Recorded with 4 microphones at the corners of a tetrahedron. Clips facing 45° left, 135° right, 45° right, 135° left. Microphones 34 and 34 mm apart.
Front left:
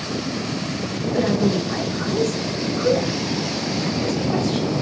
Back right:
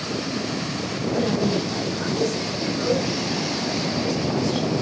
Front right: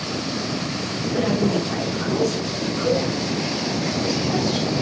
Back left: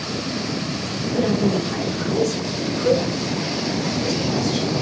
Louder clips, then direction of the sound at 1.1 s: Front left 3 dB, back left 1 dB; 40° left.